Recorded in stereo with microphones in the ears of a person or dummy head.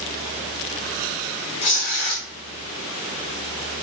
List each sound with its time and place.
1.6 s tearing paper: 35° left (ahead or behind), 0.7 m